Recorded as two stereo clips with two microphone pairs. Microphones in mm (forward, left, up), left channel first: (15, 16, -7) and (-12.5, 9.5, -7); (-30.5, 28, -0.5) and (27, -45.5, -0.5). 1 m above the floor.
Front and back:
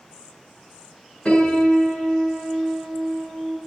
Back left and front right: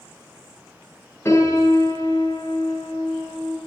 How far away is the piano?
About 8 m.